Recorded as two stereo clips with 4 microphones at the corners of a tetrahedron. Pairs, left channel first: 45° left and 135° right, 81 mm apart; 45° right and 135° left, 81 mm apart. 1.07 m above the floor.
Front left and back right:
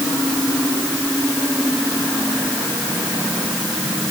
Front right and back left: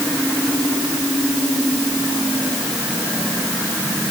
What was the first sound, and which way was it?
Only background noise.